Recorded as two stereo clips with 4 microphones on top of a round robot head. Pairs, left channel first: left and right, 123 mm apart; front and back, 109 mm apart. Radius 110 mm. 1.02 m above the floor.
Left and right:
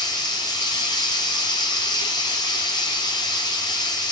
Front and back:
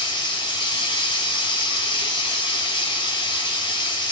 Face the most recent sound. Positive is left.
turn(degrees=40)